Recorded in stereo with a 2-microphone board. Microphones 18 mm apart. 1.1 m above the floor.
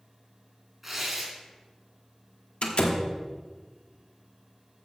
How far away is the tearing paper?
About 2.5 m.